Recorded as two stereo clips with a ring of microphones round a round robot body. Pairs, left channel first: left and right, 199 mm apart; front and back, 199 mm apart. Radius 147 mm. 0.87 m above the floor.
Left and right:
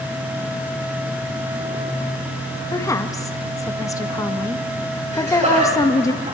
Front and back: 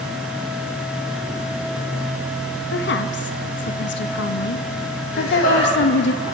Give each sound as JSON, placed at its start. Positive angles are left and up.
{"t": 2.7, "sound": "a woman speaking", "azimuth_deg": 15, "distance_m": 1.2}
{"t": 5.1, "sound": "laughter", "azimuth_deg": -35, "distance_m": 7.5}